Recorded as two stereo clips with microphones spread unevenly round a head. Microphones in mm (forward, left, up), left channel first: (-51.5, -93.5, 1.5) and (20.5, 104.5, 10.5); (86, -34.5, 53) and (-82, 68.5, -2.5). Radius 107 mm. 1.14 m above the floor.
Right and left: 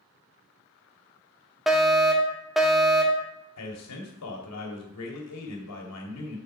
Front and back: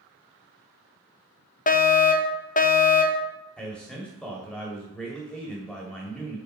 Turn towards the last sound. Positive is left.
turn(degrees=-120)